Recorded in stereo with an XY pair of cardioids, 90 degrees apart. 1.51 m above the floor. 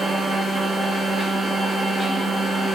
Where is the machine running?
45° right, 1.0 m.